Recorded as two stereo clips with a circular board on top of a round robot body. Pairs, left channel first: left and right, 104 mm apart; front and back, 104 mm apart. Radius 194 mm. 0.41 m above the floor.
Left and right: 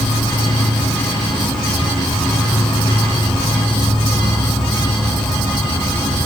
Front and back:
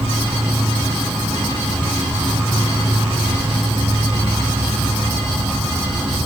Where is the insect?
115° left, 1.7 m.